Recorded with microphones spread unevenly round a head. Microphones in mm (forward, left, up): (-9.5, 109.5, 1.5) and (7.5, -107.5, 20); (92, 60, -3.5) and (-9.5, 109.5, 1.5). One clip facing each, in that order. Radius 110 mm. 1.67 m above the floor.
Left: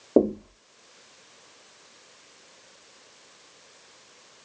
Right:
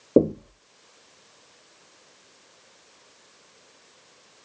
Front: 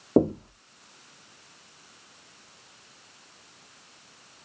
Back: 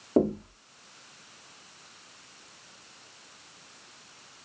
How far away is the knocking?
About 0.6 m.